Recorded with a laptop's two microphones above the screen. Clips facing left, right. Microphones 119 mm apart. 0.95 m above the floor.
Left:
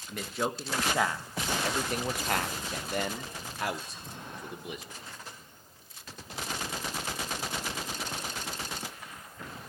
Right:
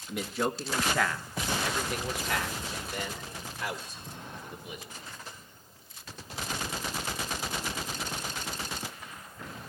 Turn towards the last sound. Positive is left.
turn(degrees=75)  # may be behind; listen again after turning